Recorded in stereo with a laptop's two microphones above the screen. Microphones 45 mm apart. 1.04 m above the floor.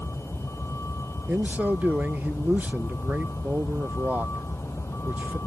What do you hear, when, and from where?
0.0 s a vehicle: 90° left
1.3 s a man speaking: 40° right (ahead or behind)